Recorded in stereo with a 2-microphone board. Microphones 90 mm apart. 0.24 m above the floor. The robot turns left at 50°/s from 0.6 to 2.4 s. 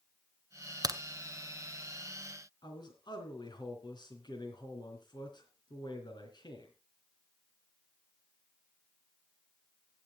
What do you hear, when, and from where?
0.8 s a crack: 45° right (ahead or behind), 0.7 m; by 1.0 s 40° right (ahead or behind), 0.7 m
2.6 s a man speaking: 55° left (ahead or behind), 3 m